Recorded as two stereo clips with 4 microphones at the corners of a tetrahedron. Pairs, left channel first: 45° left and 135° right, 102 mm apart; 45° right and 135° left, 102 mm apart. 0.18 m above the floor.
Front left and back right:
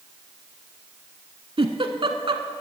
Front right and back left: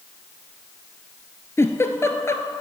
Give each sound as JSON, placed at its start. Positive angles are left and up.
{"t": 1.6, "sound": "a giggle", "azimuth_deg": -105, "distance_m": 0.9}